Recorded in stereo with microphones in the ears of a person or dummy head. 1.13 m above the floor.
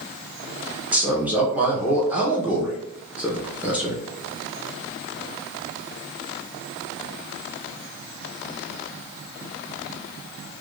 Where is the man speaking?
5° right (ahead or behind), 0.6 m.